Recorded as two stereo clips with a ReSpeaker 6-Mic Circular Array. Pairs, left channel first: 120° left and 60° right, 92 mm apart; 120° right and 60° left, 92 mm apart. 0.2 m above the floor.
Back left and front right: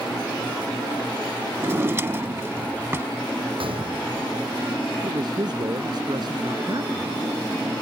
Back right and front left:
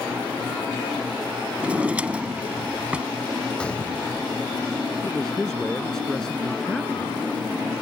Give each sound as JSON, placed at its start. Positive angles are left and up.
{"t": 1.6, "sound": "a drawer", "azimuth_deg": -10}
{"t": 3.6, "sound": "a gunshot", "azimuth_deg": -40}
{"t": 5.0, "sound": "a man speaking", "azimuth_deg": -35}